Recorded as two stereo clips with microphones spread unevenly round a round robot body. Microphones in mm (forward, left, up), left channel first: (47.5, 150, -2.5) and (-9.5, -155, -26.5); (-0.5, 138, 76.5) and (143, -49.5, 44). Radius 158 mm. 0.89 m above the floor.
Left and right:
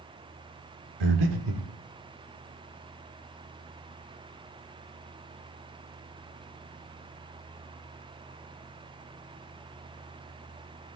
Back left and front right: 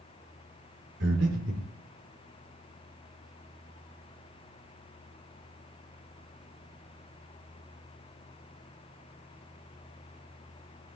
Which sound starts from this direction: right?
Breathing, at 1.0 s.